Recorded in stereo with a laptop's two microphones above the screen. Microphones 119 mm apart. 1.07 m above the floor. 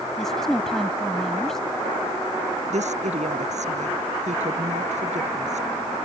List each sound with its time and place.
0.2 s a woman speaking: 5° left (ahead or behind)
2.7 s a woman speaking: 75° right (ahead or behind)